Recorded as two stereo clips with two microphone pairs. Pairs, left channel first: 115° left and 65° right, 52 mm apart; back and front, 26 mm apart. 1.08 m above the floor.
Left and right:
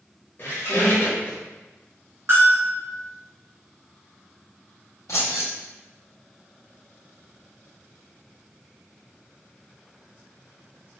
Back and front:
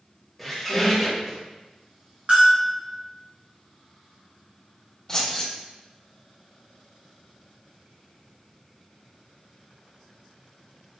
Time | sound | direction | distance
0.4 | a squeak | 80° left | 1.2 m
2.3 | a bell | 35° right | 1.5 m
5.1 | keys jangling | 105° left | 1.5 m